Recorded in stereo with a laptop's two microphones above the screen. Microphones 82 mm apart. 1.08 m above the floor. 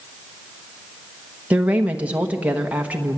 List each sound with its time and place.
1.5 s a woman speaking: 15° right (ahead or behind), 1.1 m